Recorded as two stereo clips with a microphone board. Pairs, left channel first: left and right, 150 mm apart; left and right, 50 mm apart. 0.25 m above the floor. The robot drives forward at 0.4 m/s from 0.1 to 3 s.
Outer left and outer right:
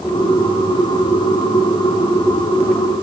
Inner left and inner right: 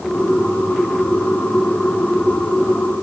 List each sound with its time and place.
Only background noise.